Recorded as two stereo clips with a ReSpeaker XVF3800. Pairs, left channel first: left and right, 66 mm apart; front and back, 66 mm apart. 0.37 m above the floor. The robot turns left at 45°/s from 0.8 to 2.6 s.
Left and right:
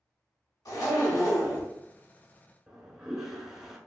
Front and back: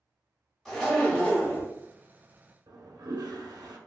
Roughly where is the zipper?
Left.